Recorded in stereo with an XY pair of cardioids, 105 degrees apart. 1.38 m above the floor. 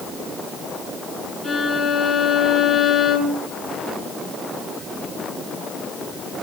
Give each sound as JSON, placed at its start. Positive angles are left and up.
{"t": 1.4, "sound": "a violin", "azimuth_deg": 15, "distance_m": 2.5}